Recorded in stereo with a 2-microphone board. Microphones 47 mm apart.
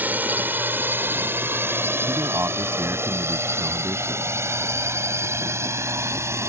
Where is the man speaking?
80° right.